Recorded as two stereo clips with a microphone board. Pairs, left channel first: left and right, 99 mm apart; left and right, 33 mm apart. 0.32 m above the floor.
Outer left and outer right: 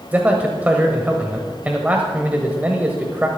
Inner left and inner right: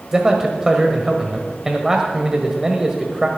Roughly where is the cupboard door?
I don't hear a cupboard door.